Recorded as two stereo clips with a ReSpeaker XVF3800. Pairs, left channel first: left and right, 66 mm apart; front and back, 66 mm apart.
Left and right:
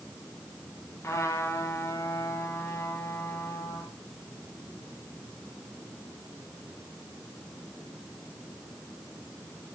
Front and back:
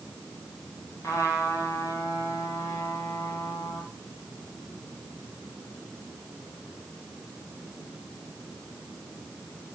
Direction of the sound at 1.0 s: 40° left.